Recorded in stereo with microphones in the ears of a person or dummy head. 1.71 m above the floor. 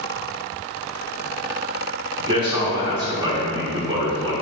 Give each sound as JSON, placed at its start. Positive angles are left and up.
{"t": 2.2, "sound": "a man speaking", "side_deg": -25, "distance_m": 0.6}